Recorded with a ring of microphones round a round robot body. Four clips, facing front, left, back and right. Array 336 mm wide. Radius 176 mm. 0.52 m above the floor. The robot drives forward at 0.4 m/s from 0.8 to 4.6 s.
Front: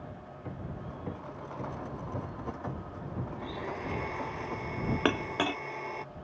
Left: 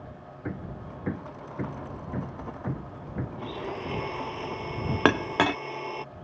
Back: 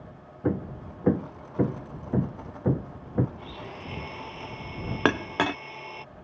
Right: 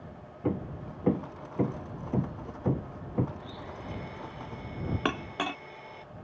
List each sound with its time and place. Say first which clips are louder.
0.4 s hammering: right 5 dB, back 13 dB; 165° right
3.4 s a blender: left 8 dB, front 3 dB; 75° left
5.0 s a clink: left 11 dB, back 6 dB; 120° left